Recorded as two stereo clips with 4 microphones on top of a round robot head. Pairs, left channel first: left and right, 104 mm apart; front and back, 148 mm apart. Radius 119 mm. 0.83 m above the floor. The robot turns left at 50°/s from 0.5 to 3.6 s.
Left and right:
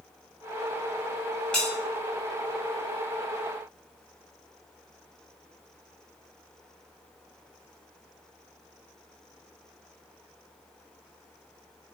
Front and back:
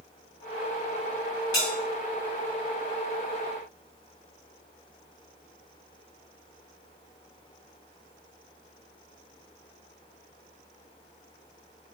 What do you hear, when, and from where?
1.5 s a bell: 20° left, 0.6 m; by 1.7 s 10° left, 0.6 m